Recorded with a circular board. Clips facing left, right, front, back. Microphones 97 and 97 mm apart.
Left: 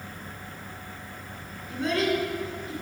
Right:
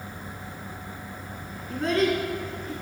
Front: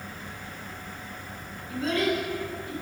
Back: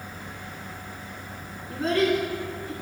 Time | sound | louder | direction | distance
1.7 | a child speaking | right 2 dB, back 3 dB | 125° right | 2 m